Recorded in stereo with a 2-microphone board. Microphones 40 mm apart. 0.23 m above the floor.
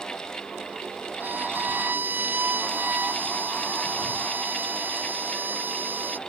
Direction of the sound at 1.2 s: 50° right (ahead or behind).